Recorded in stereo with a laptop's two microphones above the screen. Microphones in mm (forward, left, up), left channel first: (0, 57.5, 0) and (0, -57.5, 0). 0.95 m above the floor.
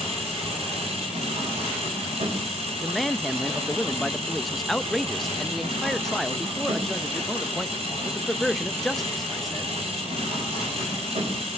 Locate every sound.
0.0 s an engine running: 65° right (ahead or behind), 5.5 m
2.8 s a man speaking: centre (ahead or behind), 0.6 m